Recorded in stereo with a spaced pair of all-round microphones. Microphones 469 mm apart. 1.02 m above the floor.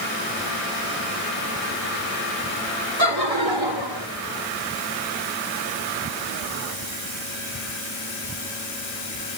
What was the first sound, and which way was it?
Laughter, 75° right (ahead or behind).